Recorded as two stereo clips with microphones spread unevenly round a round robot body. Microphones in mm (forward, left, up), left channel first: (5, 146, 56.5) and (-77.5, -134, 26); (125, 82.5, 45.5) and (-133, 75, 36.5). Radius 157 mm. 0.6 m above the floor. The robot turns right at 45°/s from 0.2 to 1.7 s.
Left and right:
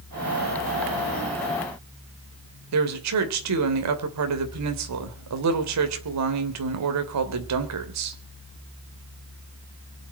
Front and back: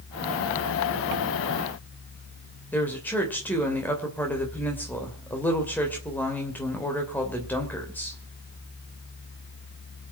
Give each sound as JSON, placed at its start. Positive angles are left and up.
{"t": 2.7, "sound": "a woman speaking", "azimuth_deg": -85, "distance_m": 2.5}